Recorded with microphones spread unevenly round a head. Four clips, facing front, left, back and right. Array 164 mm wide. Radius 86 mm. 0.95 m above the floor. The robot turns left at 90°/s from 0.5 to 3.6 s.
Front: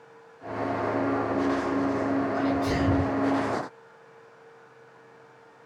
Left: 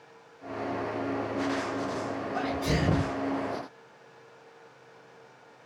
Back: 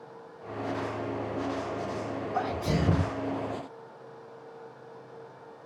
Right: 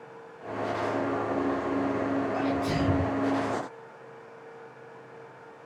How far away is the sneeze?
About 1.4 m.